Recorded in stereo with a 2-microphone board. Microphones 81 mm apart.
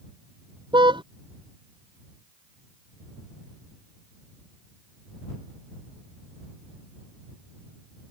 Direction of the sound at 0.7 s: 85° right.